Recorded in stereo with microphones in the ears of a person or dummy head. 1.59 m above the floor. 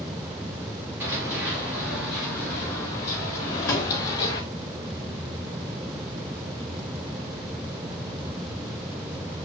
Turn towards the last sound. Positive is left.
turn(degrees=10)  # may be behind; listen again after turning